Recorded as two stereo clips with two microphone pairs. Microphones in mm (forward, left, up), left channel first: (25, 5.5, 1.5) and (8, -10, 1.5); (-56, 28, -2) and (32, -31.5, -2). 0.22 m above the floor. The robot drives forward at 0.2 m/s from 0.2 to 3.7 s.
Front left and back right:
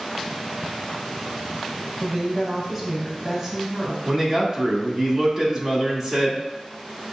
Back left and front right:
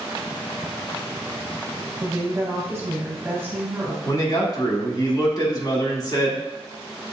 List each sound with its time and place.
2.0 s a woman speaking: 55° right, 1.1 m; by 4.0 s 90° right, 1.0 m
4.0 s a man speaking: 170° left, 1.2 m